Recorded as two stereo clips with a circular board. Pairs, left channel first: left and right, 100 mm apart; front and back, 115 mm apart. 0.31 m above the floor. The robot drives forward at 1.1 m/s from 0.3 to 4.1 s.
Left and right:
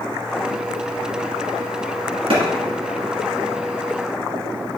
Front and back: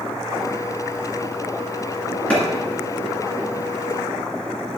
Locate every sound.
2.3 s a clap: 75° right, 2.5 m; by 2.4 s 80° right, 2.5 m